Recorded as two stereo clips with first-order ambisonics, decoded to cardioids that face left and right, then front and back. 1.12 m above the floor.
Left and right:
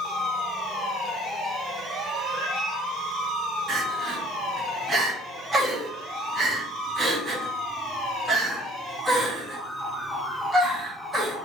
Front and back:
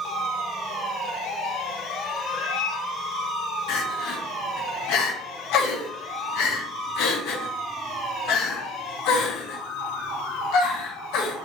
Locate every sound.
2.2 s a cat meowing: 35° left, 1.5 m
3.7 s crying: 10° right, 1.7 m